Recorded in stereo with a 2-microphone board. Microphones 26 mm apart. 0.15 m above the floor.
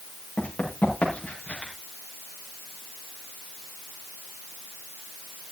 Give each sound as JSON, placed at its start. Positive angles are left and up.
{"t": 0.4, "sound": "running footsteps", "side_deg": 90, "distance_m": 8.0}